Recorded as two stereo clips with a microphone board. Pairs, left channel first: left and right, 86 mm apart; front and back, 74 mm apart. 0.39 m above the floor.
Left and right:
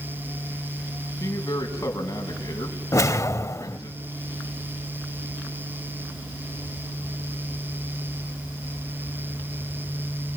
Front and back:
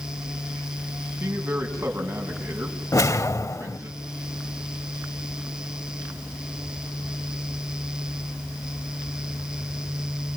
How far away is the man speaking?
About 4 m.